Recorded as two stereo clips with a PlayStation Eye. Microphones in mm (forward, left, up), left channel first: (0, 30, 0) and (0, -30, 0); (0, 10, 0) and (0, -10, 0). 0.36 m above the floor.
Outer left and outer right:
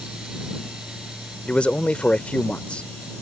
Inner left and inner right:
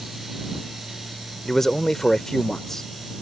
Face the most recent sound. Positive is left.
turn(degrees=20)  # may be behind; listen again after turning